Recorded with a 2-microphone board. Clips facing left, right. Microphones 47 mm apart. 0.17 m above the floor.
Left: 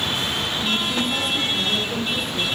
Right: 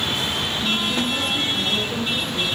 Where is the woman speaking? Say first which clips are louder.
Right 1 dB; 5° left (ahead or behind), 3.5 m; by 2.5 s centre (ahead or behind), 6 m.